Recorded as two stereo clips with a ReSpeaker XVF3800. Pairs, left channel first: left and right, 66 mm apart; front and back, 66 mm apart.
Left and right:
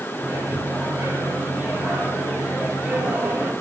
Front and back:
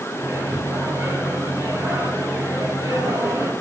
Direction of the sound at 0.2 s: 160° right.